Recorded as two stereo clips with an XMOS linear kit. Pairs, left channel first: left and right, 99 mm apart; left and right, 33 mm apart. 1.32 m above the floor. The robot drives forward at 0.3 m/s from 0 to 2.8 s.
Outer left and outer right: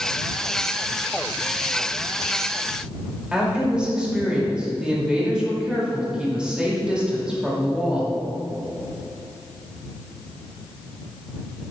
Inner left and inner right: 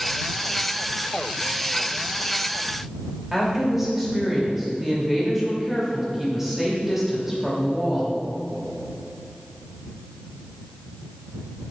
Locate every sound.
3.3 s a woman speaking: 10° right (ahead or behind), 2.5 m